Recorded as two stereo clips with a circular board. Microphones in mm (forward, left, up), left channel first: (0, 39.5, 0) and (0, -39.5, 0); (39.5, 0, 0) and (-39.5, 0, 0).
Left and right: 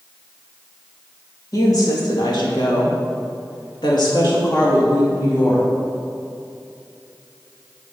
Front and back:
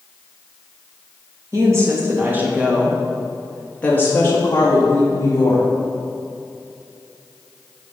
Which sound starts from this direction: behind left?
A woman speaking, at 1.5 s.